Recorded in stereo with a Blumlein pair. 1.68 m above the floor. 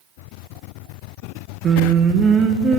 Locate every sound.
1.6 s singing: 25° right, 0.8 m